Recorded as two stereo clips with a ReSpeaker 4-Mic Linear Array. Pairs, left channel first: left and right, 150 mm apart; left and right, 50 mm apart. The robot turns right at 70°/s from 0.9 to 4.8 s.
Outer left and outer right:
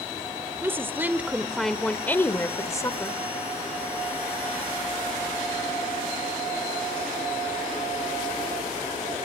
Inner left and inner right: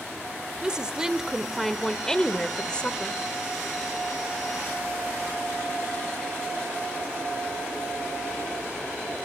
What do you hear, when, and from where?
0.6 s a woman speaking: 15° right (ahead or behind), 1.1 m; by 3.2 s 20° left (ahead or behind), 1.1 m